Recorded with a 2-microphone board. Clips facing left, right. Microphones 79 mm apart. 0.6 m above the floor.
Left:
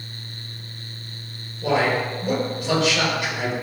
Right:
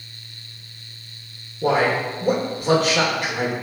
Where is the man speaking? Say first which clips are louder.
Right 2 dB; 45° right (ahead or behind), 1.8 m.